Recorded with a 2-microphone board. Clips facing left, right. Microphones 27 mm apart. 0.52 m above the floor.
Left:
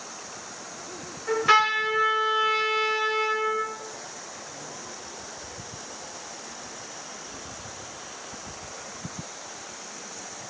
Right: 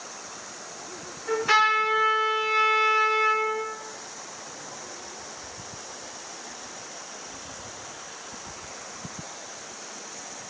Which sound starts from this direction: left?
A trumpet, at 1.3 s.